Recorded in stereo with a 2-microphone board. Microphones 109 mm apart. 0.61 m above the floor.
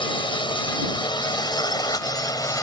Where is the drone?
50° left (ahead or behind); by 2.6 s 35° left (ahead or behind).